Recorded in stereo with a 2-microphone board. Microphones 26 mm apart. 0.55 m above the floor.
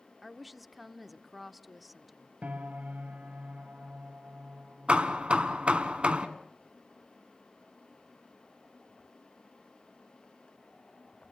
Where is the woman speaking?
5° right (ahead or behind), 1.0 m.